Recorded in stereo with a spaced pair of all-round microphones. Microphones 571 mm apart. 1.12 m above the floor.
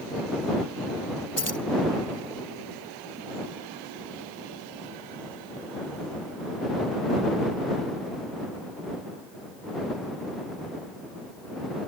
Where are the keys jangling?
25° left (ahead or behind).